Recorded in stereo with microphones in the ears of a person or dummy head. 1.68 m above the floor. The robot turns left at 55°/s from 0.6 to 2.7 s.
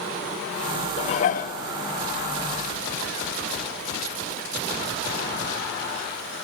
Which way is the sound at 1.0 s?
130° left.